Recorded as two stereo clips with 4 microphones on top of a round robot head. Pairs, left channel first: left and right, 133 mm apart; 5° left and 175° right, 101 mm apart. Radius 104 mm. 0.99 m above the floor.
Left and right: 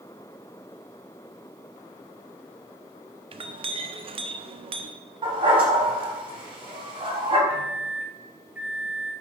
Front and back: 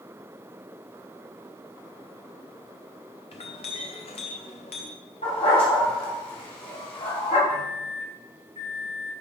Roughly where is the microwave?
Ahead.